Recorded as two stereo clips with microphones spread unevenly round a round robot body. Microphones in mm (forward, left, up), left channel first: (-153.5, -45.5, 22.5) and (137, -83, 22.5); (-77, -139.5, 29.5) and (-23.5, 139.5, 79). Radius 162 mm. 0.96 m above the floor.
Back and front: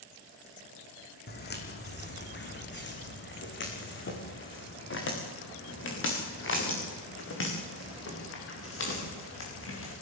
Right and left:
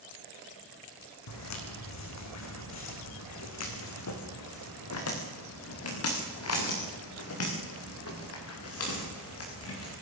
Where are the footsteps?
130° right, 4 m; by 9.9 s 140° right, 10 m.